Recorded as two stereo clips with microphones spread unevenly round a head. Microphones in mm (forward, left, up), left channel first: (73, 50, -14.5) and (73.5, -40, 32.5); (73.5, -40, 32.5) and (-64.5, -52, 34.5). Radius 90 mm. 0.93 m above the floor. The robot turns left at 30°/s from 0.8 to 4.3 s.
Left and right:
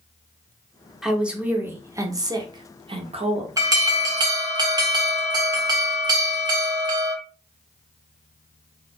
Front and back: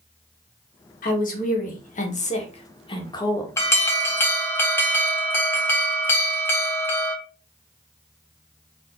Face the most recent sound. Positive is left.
turn(degrees=-35)